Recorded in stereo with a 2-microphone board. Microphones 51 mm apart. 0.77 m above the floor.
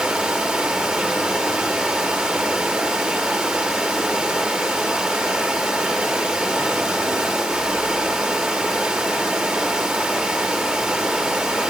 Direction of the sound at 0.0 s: 20° right (ahead or behind).